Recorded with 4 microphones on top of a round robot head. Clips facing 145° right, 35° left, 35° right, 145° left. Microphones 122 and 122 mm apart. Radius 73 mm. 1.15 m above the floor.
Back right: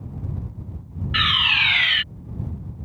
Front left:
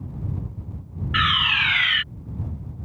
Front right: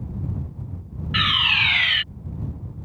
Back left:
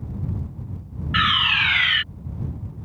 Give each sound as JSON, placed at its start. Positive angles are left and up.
{"t": 1.1, "sound": "a fire alarm", "azimuth_deg": -90}